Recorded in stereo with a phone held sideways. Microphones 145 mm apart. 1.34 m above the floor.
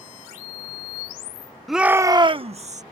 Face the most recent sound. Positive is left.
turn(degrees=-55)  # may be behind; listen again after turning